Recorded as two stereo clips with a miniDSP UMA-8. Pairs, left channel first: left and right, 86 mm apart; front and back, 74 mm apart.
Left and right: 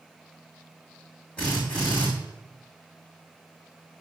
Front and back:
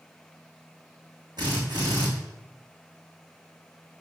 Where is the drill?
165° left, 4.5 m.